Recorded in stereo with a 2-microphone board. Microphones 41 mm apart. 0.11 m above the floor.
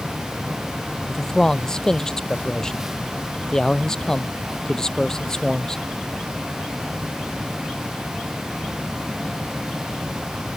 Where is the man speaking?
15° left (ahead or behind).